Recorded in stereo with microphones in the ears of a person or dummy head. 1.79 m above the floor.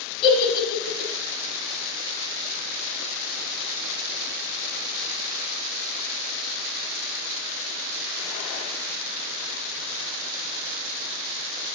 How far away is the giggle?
About 2 m.